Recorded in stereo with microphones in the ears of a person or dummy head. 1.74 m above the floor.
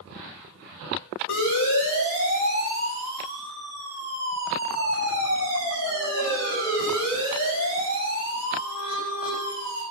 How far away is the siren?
About 9 m.